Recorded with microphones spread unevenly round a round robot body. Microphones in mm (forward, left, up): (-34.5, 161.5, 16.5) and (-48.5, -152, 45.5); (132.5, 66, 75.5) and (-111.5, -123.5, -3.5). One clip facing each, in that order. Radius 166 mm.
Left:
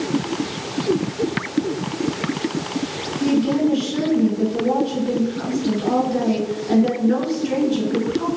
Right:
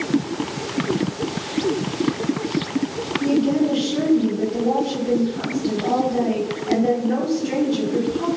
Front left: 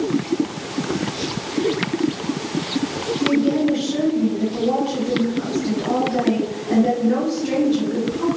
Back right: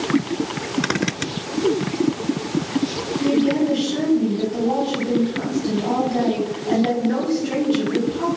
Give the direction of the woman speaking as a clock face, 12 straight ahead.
7 o'clock.